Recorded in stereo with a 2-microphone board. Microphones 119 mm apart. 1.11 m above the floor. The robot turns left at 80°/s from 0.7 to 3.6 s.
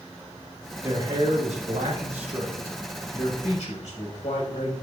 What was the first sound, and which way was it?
A man speaking, 15° right.